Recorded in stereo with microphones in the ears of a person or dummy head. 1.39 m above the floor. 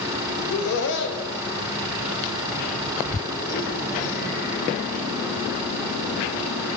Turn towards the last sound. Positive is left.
turn(degrees=70)  # may be behind; listen again after turning